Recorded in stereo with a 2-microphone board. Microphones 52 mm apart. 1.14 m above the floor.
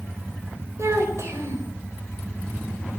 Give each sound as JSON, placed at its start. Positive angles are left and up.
{"t": 0.8, "sound": "a child speaking", "side_deg": -75, "distance_m": 4.5}